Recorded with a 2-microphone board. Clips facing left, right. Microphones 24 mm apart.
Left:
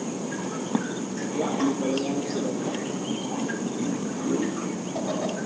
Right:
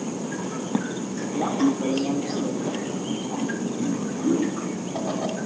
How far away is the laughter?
About 2 m.